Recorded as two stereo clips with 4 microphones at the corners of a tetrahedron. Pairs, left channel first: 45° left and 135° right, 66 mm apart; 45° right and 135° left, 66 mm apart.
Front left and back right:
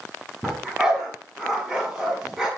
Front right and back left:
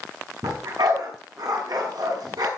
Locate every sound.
0.4 s a dog barking: 140° left, 7 m